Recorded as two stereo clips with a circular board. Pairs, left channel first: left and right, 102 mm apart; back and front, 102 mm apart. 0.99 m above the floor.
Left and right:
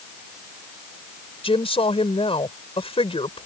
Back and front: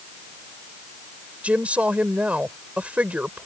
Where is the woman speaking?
75° left.